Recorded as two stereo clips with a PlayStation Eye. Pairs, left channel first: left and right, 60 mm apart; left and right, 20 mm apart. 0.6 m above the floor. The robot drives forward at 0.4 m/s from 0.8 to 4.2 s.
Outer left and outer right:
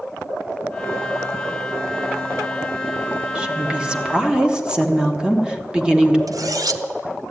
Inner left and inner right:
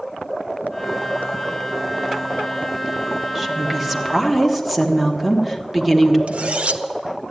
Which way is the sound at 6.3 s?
75° right (ahead or behind).